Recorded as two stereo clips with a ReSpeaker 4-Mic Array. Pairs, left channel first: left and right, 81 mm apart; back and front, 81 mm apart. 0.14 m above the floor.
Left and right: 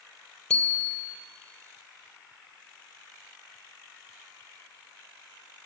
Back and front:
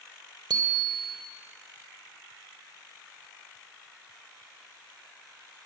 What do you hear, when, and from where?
0.5 s a bicycle bell: 10° left, 2.5 m